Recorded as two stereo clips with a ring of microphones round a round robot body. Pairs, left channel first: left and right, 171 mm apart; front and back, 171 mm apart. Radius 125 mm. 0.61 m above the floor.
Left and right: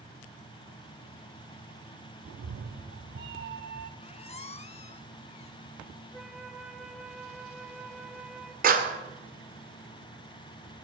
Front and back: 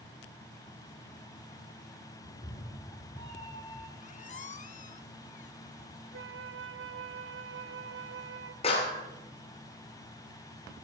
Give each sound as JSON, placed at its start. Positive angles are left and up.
{"t": 2.2, "sound": "a cat meowing", "azimuth_deg": -60, "distance_m": 0.6}
{"t": 4.0, "sound": "a squeak", "azimuth_deg": 40, "distance_m": 1.0}
{"t": 6.1, "sound": "a flute", "azimuth_deg": 180, "distance_m": 0.8}
{"t": 8.6, "sound": "a clap", "azimuth_deg": -60, "distance_m": 1.9}